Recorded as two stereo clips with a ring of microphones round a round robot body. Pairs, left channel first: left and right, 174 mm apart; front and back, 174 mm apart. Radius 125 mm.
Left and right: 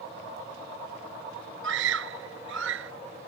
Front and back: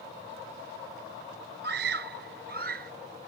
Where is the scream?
130° right; by 2.9 s 125° right.